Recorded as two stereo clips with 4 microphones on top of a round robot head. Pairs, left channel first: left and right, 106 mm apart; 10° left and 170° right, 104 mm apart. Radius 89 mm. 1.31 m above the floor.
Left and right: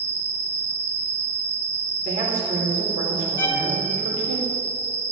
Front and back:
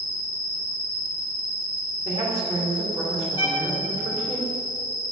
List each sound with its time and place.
0.0 s an insect: 80° right, 4 m
2.0 s a woman speaking: 105° right, 4 m
3.4 s a violin: 50° left, 1.6 m